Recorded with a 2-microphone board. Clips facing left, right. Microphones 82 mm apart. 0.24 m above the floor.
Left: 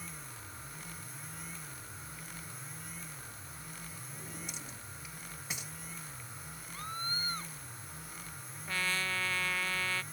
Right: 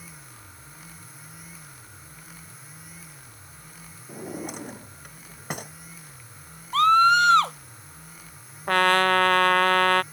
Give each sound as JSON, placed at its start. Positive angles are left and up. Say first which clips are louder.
{"t": 4.1, "sound": "a drawer", "louder": "right 15 dB", "side_deg": -55}
{"t": 6.7, "sound": "a scream", "louder": "right 25 dB", "side_deg": -80}
{"t": 8.7, "sound": "a trumpet", "louder": "right 17 dB", "side_deg": -65}